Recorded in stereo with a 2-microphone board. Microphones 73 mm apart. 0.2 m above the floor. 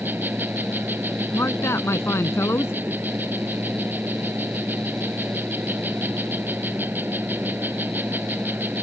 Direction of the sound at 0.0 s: 30° right (ahead or behind).